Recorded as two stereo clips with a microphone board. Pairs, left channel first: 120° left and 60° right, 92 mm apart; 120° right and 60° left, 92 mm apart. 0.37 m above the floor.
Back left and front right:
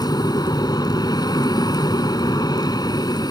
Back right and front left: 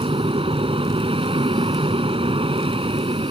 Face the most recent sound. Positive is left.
turn(degrees=75)